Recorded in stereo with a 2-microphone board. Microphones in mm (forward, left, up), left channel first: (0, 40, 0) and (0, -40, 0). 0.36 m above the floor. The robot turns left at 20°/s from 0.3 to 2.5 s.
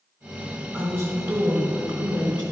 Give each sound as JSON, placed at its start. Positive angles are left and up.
{"t": 0.7, "sound": "a woman speaking", "azimuth_deg": -30, "distance_m": 3.0}